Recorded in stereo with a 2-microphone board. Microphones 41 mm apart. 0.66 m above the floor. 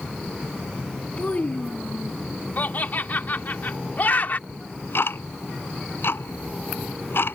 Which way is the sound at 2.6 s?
50° left (ahead or behind).